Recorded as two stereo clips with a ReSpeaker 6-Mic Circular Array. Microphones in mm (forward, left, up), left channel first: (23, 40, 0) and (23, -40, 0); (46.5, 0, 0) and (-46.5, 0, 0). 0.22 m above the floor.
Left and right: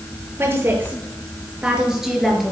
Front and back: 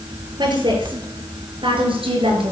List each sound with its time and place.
0.4 s a woman speaking: 150° right, 4 m; by 2.5 s straight behind, 3.5 m